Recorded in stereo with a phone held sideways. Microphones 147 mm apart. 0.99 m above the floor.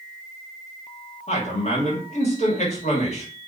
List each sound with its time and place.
1.3 s a man speaking: 50° left (ahead or behind), 1.4 m